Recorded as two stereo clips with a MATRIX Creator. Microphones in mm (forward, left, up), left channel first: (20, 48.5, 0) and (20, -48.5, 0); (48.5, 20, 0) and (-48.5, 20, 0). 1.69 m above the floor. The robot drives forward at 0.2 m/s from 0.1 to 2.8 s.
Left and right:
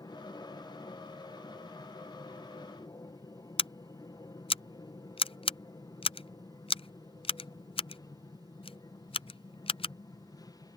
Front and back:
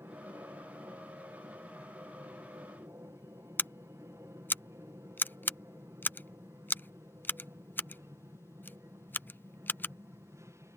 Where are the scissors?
70° left.